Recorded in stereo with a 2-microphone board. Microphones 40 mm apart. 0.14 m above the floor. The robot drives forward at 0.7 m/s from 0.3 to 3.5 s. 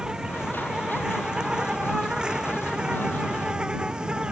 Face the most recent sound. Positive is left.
turn(degrees=-20)  # may be behind; listen again after turning